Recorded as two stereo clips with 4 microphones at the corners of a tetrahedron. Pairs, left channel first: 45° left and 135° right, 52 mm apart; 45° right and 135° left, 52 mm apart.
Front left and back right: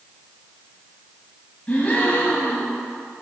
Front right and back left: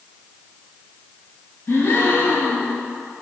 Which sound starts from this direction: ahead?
A gasp, at 1.7 s.